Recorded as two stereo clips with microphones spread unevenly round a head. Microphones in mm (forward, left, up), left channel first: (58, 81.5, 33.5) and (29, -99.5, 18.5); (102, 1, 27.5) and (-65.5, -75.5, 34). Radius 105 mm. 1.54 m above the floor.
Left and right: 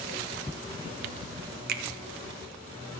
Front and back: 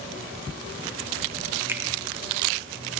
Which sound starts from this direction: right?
A finger snap, at 1.7 s.